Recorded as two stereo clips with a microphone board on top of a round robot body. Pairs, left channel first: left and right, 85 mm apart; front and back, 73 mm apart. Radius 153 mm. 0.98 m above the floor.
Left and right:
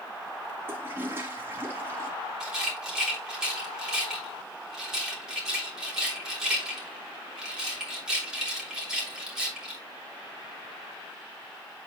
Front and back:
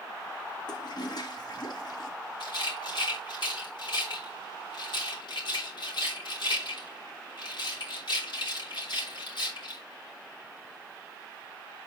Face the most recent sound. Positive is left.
turn(degrees=-5)